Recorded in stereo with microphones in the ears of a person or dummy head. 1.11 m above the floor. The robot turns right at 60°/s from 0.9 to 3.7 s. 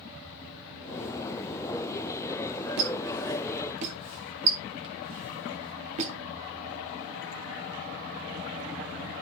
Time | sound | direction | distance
2.8 | a squeak | 70° right (ahead or behind) | 1.5 m